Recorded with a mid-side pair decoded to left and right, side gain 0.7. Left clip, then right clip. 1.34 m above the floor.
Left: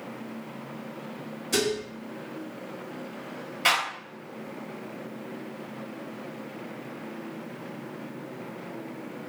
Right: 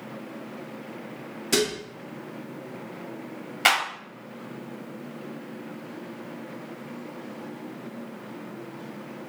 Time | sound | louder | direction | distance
1.5 | dishes clattering | right 2 dB | 40° right | 1.1 m
3.6 | a clap | right 2 dB | 30° right | 1.4 m